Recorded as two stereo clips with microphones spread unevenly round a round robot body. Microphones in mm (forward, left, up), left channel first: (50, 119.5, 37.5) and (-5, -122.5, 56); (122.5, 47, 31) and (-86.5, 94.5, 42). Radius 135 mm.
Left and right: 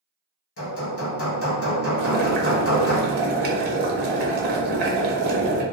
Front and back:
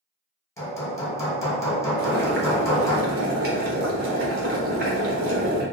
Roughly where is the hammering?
Ahead left.